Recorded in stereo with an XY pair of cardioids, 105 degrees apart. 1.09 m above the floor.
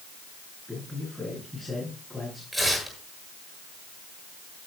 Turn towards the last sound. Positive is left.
turn(degrees=-10)